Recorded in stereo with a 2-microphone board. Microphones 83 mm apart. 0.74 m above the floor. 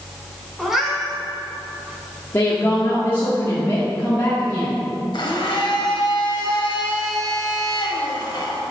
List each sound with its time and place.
0.6 s a cat meowing: 5° right (ahead or behind), 1.5 m
2.3 s a woman speaking: 30° left (ahead or behind), 1.3 m
5.1 s a blender: 65° left (ahead or behind), 1.3 m